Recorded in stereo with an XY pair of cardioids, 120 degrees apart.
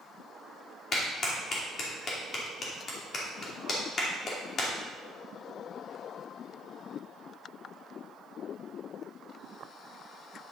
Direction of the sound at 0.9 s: 45° left.